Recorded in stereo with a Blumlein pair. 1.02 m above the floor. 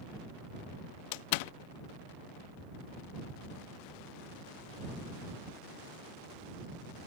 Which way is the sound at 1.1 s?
45° left.